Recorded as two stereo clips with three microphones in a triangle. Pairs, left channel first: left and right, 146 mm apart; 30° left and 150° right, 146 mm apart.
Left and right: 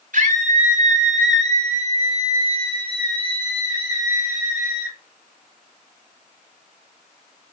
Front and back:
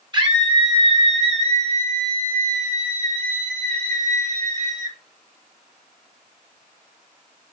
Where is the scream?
95° right, 2.5 m; by 5.0 s 165° right, 3 m.